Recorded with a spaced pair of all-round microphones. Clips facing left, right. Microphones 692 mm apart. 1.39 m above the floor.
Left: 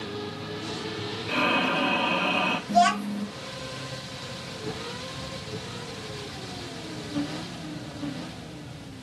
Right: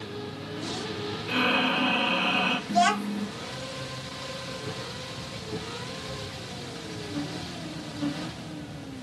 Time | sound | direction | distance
1.3 | breathing | 45° right (ahead or behind) | 1.1 m
2.7 | a child speaking | 10° left (ahead or behind) | 0.6 m